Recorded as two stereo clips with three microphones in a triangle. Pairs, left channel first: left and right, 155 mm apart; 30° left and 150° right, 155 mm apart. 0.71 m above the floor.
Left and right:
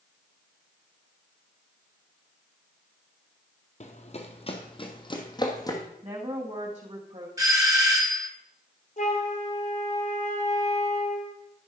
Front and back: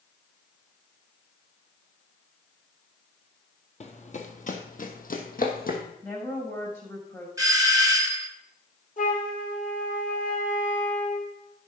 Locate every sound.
3.8 s running footsteps: 60° left, 1.3 m; by 5.8 s 25° left, 1.7 m
6.0 s a woman speaking: 45° right, 5 m
7.4 s a doorbell: 120° right, 1.2 m
9.0 s a flute: 55° left, 2.5 m